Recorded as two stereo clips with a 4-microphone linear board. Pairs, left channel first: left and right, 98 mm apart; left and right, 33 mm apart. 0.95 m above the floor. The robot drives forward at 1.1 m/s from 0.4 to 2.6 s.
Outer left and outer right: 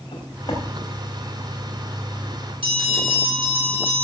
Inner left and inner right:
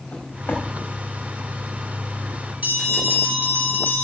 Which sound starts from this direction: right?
A bell, at 2.6 s.